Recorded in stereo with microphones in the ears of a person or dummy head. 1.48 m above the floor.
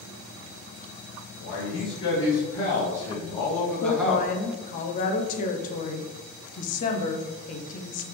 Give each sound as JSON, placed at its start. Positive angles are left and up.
{"t": 1.4, "sound": "a man speaking", "side_deg": 50, "distance_m": 1.7}
{"t": 3.8, "sound": "a woman speaking", "side_deg": 50, "distance_m": 0.5}